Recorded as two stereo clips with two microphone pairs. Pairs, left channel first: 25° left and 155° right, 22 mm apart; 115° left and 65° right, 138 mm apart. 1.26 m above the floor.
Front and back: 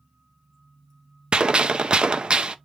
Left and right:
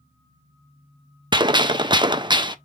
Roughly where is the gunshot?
Behind right.